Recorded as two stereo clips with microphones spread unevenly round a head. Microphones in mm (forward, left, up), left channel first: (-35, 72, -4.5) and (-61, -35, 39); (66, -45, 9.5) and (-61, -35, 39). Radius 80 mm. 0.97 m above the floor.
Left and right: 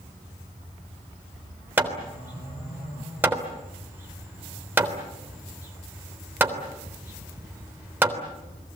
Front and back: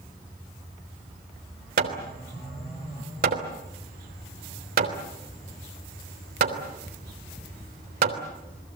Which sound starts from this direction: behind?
Hammering, at 1.8 s.